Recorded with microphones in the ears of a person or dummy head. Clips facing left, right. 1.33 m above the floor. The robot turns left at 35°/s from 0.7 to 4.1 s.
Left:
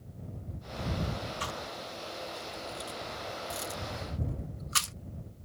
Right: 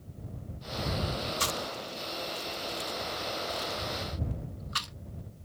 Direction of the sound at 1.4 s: 50° right (ahead or behind).